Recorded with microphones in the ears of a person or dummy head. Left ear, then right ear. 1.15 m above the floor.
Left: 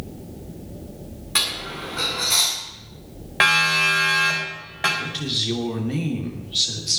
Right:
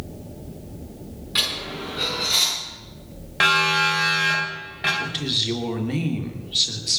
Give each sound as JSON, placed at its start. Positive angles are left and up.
{"t": 1.4, "sound": "a dropped coin", "side_deg": 30, "distance_m": 6.5}
{"t": 3.4, "sound": "a siren", "side_deg": 25, "distance_m": 4.5}
{"t": 5.0, "sound": "a woman speaking", "side_deg": -15, "distance_m": 3.0}